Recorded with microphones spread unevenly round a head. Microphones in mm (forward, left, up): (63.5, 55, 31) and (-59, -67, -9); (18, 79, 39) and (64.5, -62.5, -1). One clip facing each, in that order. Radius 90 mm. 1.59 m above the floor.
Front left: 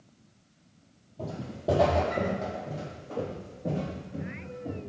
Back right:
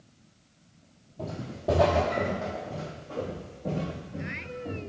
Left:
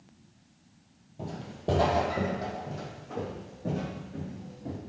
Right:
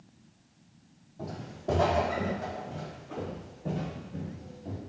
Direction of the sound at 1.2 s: 110° left.